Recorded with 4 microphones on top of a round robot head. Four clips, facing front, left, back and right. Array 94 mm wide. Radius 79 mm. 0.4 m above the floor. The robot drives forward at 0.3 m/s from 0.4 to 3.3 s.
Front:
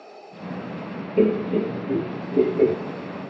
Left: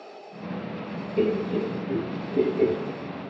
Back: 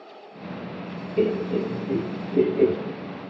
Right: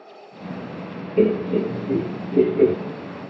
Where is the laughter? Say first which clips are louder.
Right 6 dB, front 3 dB; 50° right, 0.9 m; by 2.8 s 115° right, 0.9 m.